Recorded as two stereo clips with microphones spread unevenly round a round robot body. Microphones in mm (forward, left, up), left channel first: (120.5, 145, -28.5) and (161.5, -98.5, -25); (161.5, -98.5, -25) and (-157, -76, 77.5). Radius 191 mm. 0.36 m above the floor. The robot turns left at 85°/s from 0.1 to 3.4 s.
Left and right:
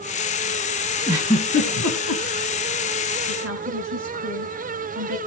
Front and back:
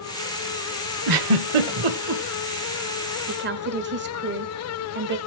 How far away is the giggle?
About 1.8 m.